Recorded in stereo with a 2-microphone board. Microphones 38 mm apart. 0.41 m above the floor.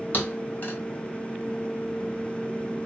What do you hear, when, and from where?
0.1 s a thud: 45° left (ahead or behind), 1.1 m